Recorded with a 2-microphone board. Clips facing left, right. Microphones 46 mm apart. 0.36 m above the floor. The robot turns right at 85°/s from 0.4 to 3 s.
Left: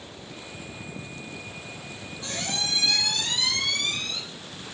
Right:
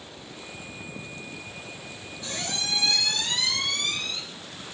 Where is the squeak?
125° left, 1.9 m; by 4.2 s 170° right, 1.9 m.